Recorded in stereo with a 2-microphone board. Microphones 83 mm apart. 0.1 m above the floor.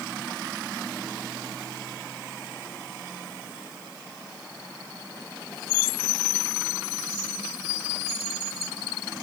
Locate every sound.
Only background noise.